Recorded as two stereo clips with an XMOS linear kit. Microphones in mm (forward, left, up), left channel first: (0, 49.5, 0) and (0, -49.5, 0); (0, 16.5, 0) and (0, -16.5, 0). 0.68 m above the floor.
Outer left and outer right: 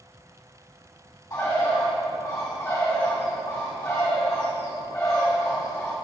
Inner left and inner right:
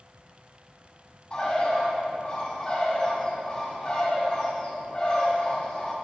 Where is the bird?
30° left (ahead or behind), 2 m.